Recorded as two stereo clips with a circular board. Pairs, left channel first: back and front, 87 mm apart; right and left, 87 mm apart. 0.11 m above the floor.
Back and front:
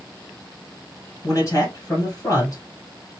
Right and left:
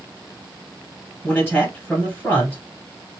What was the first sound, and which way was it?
A man speaking, 150° right.